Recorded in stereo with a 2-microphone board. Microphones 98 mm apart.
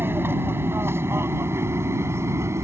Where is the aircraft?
25° right (ahead or behind); by 2.6 s 30° right (ahead or behind).